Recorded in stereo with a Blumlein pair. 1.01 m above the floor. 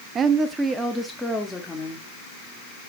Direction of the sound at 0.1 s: 25° right.